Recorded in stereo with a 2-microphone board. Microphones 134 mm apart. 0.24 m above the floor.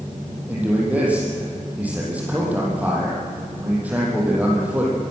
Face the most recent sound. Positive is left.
turn(degrees=-10)  # may be behind; listen again after turning